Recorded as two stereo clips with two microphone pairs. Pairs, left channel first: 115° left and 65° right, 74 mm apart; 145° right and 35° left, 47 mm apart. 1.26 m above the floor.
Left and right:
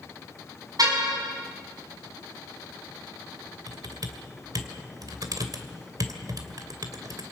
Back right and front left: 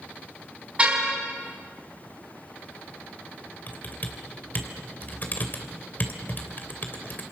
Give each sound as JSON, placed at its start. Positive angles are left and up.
{"t": 0.8, "sound": "a car horn", "azimuth_deg": -30, "distance_m": 5.5}
{"t": 3.7, "sound": "typing on a keyboard", "azimuth_deg": -100, "distance_m": 2.5}